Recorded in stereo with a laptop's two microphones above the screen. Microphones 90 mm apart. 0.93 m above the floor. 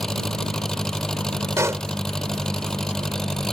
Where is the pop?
30° right (ahead or behind).